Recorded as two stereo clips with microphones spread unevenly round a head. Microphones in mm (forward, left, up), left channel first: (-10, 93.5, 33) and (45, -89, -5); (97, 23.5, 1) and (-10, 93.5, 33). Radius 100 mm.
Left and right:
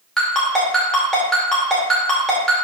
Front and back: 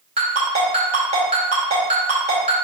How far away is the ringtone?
About 2.5 m.